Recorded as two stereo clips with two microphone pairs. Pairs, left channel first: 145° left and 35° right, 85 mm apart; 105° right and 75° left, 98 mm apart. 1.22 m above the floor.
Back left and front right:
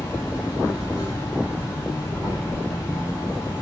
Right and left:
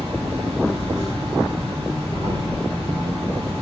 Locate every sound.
0.0 s an insect: 90° left, 2 m